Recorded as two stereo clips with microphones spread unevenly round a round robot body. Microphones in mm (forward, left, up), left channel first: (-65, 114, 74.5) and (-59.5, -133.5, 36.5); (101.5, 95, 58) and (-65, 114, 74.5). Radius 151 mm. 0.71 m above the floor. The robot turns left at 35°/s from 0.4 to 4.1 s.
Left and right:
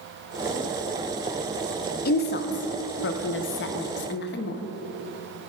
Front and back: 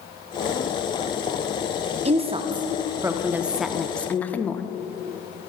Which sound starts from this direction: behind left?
A woman speaking, at 2.0 s.